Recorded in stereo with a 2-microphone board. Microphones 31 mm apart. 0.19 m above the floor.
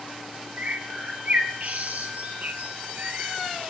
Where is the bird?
60° right (ahead or behind), 2.5 m.